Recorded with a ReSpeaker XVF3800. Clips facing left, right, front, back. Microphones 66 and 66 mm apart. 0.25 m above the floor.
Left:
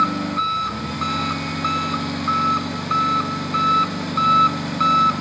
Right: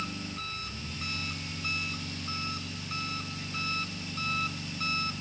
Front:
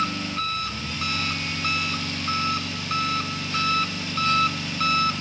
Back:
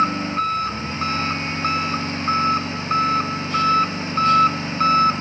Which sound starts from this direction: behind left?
An engine running, at 0.0 s.